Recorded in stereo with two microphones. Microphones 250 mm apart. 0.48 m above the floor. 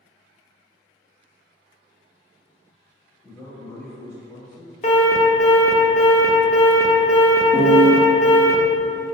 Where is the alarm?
30° left (ahead or behind), 0.6 m.